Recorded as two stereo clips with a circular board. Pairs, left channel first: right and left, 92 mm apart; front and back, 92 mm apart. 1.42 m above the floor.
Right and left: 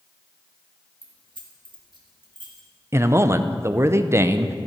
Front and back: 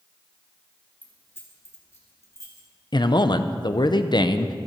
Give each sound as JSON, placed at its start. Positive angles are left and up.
{"t": 1.0, "sound": "keys jangling", "azimuth_deg": 65, "distance_m": 1.5}
{"t": 2.9, "sound": "a man speaking", "azimuth_deg": 30, "distance_m": 0.5}